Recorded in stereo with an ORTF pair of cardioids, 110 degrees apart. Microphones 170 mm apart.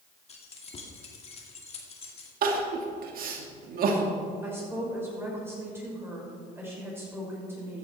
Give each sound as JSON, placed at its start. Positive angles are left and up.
{"t": 0.3, "sound": "keys jangling", "azimuth_deg": 40, "distance_m": 2.5}
{"t": 2.4, "sound": "crying", "azimuth_deg": -60, "distance_m": 2.0}
{"t": 4.4, "sound": "a woman speaking", "azimuth_deg": -10, "distance_m": 6.0}